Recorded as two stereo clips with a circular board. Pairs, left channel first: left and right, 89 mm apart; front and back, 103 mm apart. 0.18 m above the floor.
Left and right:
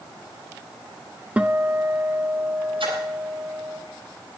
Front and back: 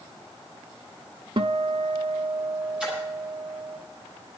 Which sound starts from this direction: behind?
A guitar, at 1.4 s.